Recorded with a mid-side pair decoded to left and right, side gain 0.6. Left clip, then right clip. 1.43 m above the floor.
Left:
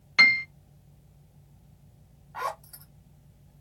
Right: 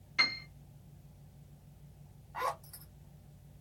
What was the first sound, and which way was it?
A piano, 60° left.